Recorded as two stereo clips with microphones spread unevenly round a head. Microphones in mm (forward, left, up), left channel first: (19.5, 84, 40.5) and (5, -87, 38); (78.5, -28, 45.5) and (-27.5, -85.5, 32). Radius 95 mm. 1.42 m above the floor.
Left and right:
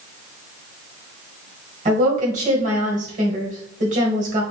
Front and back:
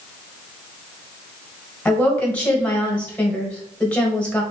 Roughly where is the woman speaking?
Ahead right.